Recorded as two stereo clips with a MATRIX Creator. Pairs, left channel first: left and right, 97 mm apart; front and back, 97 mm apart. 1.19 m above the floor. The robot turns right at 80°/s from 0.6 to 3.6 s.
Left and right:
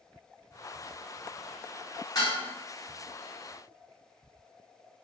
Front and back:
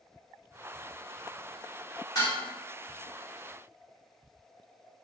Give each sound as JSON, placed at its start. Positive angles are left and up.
{"t": 2.1, "sound": "dishes clattering", "azimuth_deg": 45, "distance_m": 1.8}